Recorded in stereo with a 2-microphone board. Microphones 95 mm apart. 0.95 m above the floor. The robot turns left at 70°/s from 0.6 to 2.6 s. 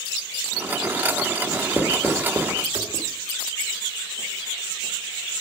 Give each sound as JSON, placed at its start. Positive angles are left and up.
{"t": 1.5, "sound": "writing", "side_deg": 40, "distance_m": 1.4}